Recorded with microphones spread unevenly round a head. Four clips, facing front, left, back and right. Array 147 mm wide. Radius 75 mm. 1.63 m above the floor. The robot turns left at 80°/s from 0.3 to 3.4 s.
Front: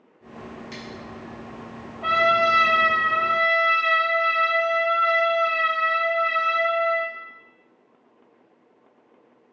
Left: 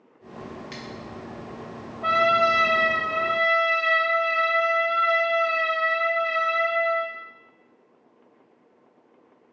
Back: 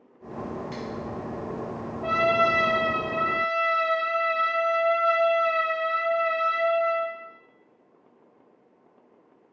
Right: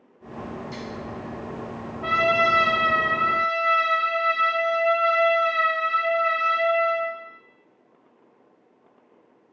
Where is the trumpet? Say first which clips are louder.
Left 1 dB, front 3 dB; 10° right, 1.2 m; by 7.1 s 120° right, 1.2 m.